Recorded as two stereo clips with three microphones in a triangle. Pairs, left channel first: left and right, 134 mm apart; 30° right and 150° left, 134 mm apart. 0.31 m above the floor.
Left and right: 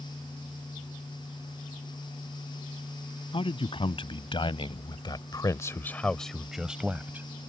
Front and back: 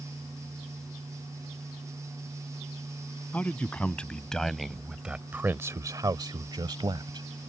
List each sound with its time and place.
3.3 s a man speaking: 45° left; by 7.3 s 165° right